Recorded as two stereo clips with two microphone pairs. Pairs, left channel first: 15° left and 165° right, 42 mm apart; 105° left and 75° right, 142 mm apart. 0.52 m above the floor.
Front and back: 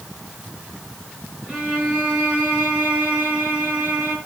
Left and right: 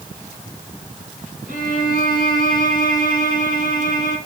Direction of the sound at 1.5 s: 100° right.